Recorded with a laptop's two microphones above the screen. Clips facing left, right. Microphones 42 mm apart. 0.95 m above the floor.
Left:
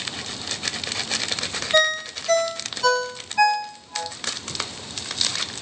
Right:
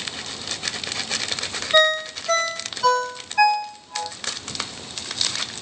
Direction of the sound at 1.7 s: 10° right (ahead or behind).